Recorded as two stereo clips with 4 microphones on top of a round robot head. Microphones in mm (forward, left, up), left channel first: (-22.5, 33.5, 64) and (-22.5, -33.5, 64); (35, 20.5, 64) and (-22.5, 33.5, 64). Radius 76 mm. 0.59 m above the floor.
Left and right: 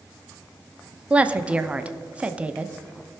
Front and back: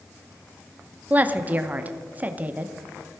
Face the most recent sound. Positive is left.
turn(degrees=-150)